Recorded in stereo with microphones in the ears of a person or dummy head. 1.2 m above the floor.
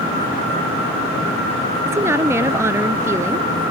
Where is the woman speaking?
15° right (ahead or behind).